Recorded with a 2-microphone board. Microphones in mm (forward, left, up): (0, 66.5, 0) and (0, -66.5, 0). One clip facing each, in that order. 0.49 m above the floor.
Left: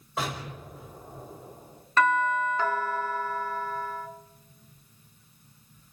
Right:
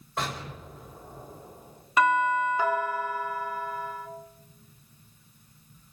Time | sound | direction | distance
0.2 | an explosion | 5° left (ahead or behind) | 2.5 m
2.0 | a doorbell | 10° right (ahead or behind) | 1.4 m